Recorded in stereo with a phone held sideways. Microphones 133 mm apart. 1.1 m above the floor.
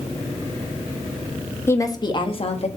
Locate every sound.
1.7 s a woman speaking: 20° left (ahead or behind), 1.3 m; by 2.7 s 55° left (ahead or behind), 1.5 m